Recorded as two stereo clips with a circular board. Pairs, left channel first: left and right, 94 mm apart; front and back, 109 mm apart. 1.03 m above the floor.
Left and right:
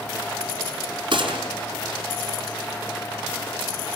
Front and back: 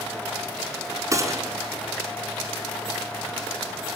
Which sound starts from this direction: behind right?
A gunshot, at 1.1 s.